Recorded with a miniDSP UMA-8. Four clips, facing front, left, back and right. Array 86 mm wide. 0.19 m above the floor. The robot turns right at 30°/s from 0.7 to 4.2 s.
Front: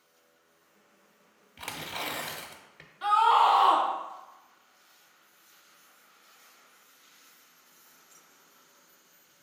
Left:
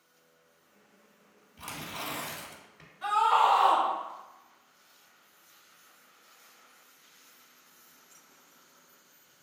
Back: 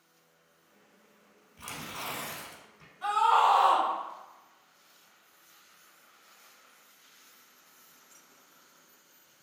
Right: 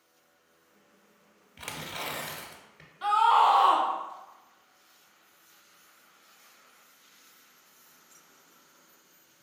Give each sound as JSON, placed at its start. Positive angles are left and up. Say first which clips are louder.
{"t": 1.6, "sound": "tearing paper", "louder": "right 1 dB, front 3 dB", "azimuth_deg": -45, "distance_m": 1.0}
{"t": 3.0, "sound": "a scream", "louder": "right 3 dB, front 2 dB", "azimuth_deg": -50, "distance_m": 1.2}